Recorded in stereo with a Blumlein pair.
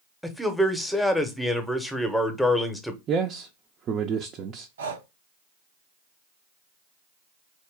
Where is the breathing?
65° right, 0.6 m.